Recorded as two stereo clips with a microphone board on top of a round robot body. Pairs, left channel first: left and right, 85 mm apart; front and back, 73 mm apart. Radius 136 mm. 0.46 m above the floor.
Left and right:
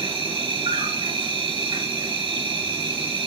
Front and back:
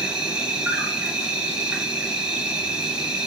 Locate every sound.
0.0 s an insect: 100° right, 3 m